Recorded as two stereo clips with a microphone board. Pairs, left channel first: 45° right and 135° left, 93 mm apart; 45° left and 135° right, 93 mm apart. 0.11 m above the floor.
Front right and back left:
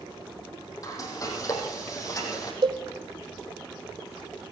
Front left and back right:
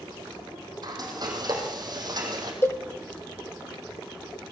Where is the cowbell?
105° left, 1.7 m.